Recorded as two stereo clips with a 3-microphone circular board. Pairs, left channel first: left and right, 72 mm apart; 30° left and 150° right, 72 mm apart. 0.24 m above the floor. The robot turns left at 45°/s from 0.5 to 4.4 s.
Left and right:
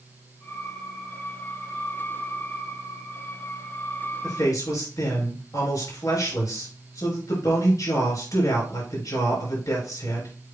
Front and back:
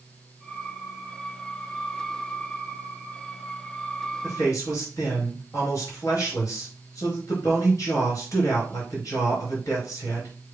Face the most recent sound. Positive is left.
turn(degrees=65)